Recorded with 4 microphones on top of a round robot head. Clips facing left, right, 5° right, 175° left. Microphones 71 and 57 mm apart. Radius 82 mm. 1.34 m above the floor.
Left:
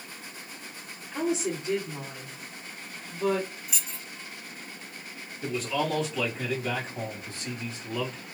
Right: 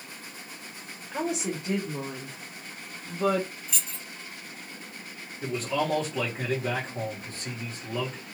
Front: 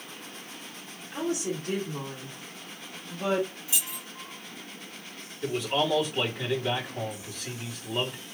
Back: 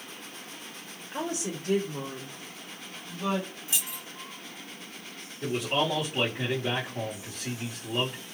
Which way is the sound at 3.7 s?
170° left.